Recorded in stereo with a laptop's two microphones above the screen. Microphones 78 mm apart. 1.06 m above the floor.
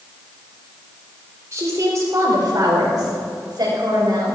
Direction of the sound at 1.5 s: 40° right (ahead or behind).